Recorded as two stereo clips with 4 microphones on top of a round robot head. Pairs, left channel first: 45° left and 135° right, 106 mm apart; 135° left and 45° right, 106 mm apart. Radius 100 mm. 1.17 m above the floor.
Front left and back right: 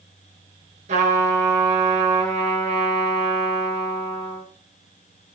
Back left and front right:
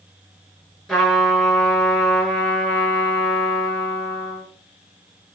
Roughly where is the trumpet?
Behind right.